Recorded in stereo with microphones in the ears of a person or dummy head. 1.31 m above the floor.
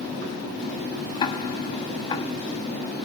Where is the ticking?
25° left (ahead or behind), 0.9 m.